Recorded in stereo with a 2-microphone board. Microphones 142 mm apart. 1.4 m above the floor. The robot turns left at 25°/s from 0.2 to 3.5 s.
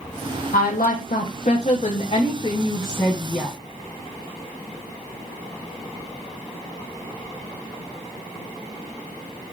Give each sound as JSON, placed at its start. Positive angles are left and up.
{"t": 0.5, "sound": "a woman speaking", "azimuth_deg": 80, "distance_m": 0.8}